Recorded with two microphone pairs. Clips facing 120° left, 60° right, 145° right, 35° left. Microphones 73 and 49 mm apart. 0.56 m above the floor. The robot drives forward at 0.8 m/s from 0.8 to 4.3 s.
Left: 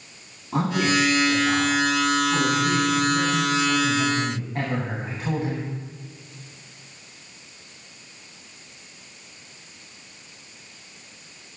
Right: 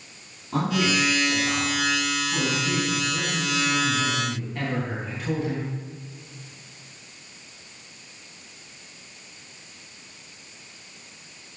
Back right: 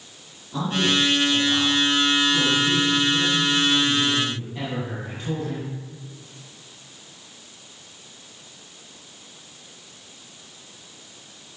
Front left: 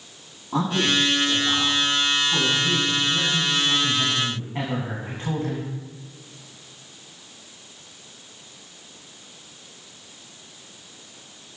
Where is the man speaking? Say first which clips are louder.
Left 2 dB, even; 45° left, 4.5 m; by 5.7 s 80° left, 3.5 m.